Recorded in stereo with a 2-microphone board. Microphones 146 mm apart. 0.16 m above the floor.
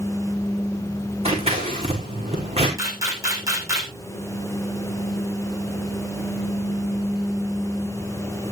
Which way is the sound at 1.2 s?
45° right (ahead or behind).